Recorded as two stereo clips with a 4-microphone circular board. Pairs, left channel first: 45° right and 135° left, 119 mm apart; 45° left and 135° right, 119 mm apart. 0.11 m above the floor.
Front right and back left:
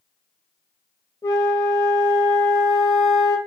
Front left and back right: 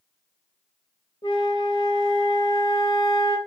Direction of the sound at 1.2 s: 10° left.